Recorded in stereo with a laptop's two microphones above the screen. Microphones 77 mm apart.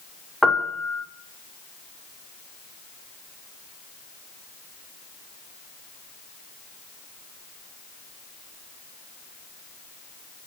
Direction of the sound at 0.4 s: Centre (ahead or behind).